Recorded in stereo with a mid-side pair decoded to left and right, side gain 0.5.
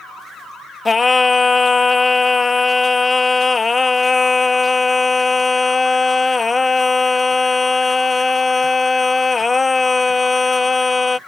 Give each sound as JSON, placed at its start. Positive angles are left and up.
{"t": 0.8, "sound": "singing", "azimuth_deg": 25}